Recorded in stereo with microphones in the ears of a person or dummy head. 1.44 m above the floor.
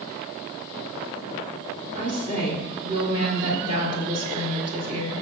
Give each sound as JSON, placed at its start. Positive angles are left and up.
{"t": 1.9, "sound": "a woman speaking", "side_deg": -35, "distance_m": 4.0}